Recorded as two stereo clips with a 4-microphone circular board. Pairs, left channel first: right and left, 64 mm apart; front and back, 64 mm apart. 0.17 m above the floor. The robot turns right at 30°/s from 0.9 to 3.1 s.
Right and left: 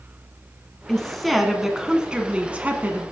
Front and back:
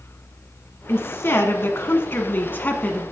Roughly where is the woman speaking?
Ahead.